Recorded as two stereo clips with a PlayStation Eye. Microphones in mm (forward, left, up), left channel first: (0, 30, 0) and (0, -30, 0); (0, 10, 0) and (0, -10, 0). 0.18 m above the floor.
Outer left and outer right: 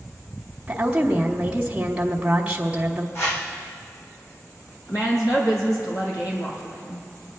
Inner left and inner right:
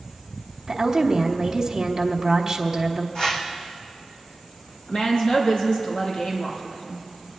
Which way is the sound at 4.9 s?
75° left (ahead or behind).